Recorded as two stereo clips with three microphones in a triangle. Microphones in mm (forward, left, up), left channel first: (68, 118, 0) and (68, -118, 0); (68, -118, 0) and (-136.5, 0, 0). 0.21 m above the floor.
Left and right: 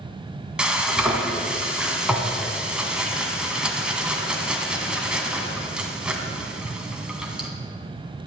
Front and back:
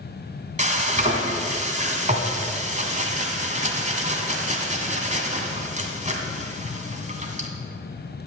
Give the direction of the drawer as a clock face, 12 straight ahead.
No drawer in this recording.